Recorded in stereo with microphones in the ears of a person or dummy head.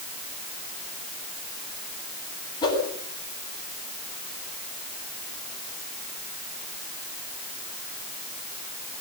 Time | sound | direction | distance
2.6 | a whoosh | 25° left (ahead or behind) | 7.5 m